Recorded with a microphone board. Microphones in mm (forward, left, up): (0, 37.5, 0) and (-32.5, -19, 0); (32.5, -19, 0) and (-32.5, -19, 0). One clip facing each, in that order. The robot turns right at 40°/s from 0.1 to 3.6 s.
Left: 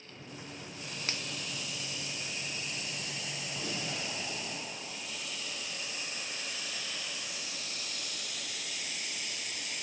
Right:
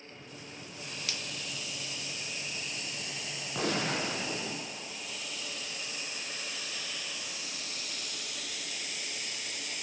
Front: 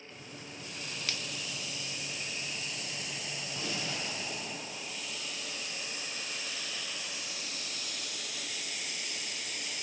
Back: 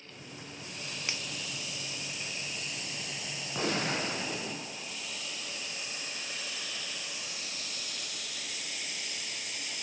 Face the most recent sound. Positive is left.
turn(degrees=-145)